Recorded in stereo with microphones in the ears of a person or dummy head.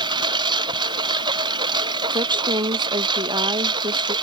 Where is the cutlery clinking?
I don't hear cutlery clinking.